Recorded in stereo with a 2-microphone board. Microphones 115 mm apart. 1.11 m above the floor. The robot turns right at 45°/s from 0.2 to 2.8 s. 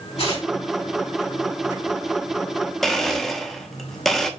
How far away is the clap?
I don't hear a clap.